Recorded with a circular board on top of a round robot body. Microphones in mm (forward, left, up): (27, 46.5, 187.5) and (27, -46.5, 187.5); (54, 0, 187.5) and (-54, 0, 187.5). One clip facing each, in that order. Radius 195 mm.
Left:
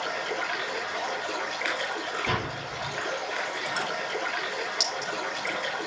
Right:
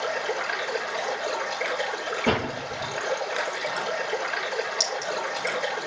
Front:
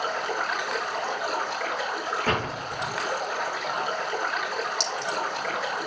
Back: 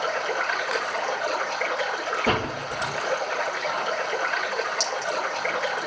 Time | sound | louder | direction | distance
0.0 | running water | right 3 dB, back 2 dB | 85° right | 9 m
2.3 | a door slam | right 5 dB, back 4 dB | 100° right | 7.5 m
4.8 | a clink | right 3 dB, back 2 dB | 30° right | 5 m